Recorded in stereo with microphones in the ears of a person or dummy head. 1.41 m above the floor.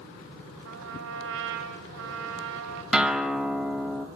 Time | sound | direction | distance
0.7 | a trumpet | 70° right (ahead or behind) | 3 m
2.9 | a guitar | 5° right (ahead or behind) | 2.0 m